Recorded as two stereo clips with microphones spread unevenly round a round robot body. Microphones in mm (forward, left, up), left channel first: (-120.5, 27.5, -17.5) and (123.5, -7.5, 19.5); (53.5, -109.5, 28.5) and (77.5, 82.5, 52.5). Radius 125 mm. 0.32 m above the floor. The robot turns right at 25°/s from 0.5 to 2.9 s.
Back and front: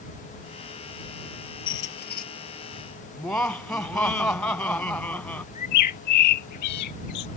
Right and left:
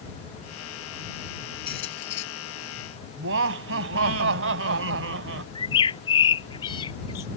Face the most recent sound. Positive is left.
turn(degrees=-170)